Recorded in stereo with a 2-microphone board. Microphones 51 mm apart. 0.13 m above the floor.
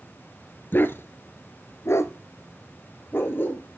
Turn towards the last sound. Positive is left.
turn(degrees=40)  # may be behind; listen again after turning